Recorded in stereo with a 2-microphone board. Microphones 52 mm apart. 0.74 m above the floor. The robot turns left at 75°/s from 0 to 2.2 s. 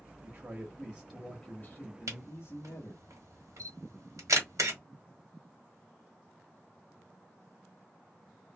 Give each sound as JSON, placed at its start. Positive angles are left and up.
{"t": 0.2, "sound": "a man speaking", "azimuth_deg": -115, "distance_m": 1.0}
{"t": 2.1, "sound": "a camera shutter", "side_deg": -85, "distance_m": 1.3}